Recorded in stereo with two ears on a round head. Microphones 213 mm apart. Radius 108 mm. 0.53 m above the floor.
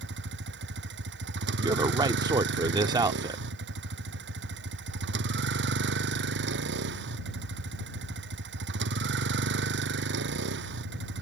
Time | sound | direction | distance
0.0 | a vehicle | 50° right (ahead or behind) | ?
1.6 | a man speaking | 15° right (ahead or behind) | ?